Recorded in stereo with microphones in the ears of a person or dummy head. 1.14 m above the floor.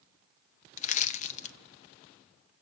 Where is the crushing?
45° left (ahead or behind), 0.7 m.